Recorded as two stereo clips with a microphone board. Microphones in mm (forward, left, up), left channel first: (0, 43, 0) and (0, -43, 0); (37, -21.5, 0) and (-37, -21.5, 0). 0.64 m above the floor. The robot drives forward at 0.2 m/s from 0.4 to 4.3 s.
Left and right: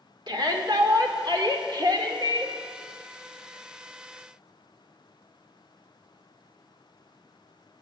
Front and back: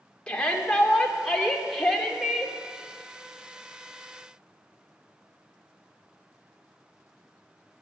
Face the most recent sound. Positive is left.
turn(degrees=-100)